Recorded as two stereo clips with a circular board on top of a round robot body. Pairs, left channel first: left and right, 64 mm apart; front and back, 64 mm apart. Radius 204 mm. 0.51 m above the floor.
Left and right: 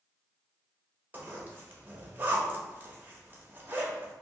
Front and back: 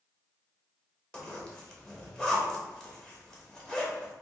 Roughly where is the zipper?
Right.